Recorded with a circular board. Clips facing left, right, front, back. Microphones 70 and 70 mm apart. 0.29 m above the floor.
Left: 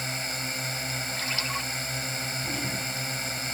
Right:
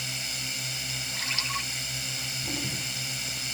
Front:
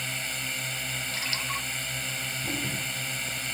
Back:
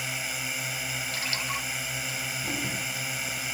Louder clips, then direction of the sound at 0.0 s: Left 4 dB, back 1 dB; 105° left.